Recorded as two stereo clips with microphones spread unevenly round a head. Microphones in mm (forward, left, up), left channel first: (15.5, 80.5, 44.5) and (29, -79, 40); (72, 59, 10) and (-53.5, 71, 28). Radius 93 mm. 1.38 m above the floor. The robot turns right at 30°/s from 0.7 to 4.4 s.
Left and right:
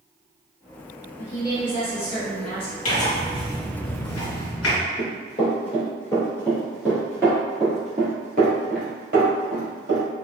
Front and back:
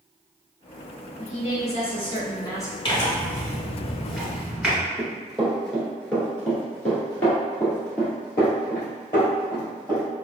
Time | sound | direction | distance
1.2 | a woman speaking | 20° left | 1.4 m
2.9 | tearing paper | 50° left | 1.9 m
5.0 | running footsteps | 95° left | 1.7 m